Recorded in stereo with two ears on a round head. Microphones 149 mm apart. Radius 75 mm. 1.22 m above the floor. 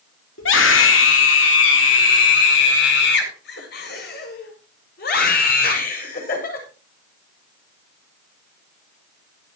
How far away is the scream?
About 4 m.